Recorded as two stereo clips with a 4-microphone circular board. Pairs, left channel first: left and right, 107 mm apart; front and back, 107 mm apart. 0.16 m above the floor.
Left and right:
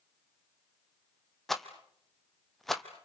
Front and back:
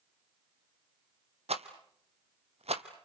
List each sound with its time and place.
1.5 s a rattle: straight behind, 1.7 m